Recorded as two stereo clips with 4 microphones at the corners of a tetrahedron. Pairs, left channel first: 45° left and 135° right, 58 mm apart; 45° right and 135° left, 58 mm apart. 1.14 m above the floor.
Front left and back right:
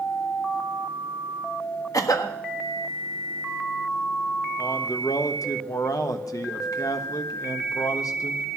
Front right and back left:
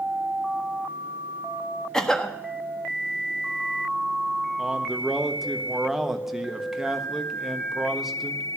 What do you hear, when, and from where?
1.9 s a cough: 35° left, 1.3 m
4.6 s a man speaking: 50° left, 1.2 m